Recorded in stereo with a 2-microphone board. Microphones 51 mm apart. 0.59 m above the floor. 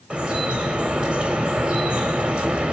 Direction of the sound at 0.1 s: 20° right (ahead or behind).